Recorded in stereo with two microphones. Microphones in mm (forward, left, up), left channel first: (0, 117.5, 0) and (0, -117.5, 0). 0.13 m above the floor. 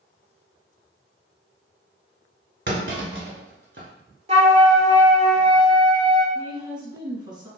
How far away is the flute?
About 0.7 m.